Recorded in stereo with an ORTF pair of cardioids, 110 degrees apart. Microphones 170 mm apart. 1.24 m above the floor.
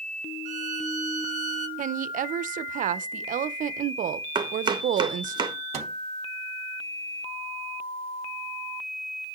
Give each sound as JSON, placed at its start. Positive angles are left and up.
{"t": 0.5, "sound": "a violin", "azimuth_deg": -50, "distance_m": 0.8}
{"t": 1.8, "sound": "a woman speaking", "azimuth_deg": -50, "distance_m": 0.5}
{"t": 4.3, "sound": "chopping", "azimuth_deg": -25, "distance_m": 0.9}
{"t": 5.7, "sound": "a microwave", "azimuth_deg": -40, "distance_m": 1.1}